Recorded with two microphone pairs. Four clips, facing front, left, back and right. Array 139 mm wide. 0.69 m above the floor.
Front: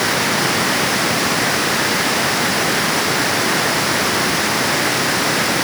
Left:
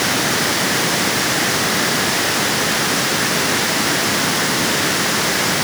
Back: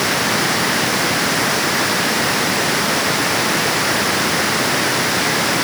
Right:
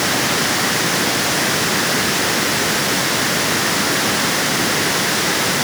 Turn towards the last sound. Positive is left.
No sound to turn to.